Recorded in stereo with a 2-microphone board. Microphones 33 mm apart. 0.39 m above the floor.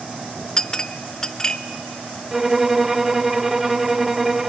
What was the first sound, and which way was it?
A clink, 20° left (ahead or behind).